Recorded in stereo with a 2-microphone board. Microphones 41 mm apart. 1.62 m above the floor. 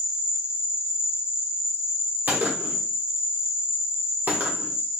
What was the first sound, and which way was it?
An insect, 70° left (ahead or behind).